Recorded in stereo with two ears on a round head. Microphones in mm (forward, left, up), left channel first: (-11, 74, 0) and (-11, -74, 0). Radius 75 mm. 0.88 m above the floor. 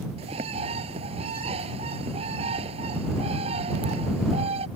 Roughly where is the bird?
Right.